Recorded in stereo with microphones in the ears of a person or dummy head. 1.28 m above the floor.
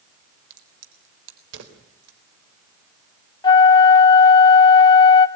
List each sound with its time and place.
0.5 s a crack: 70° right (ahead or behind), 3.5 m
3.4 s a flute: 25° left (ahead or behind), 1.5 m